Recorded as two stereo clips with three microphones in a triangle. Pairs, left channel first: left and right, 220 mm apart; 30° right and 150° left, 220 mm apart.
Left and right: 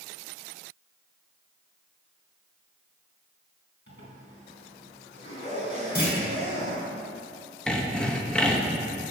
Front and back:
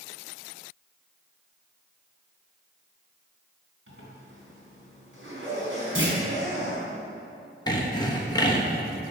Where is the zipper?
125° left, 3.5 m.